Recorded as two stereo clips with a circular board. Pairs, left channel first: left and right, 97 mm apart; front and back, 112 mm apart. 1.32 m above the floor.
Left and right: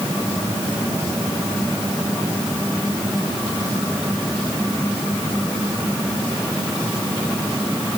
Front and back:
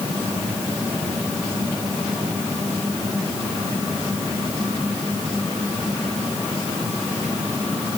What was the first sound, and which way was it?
Only background noise.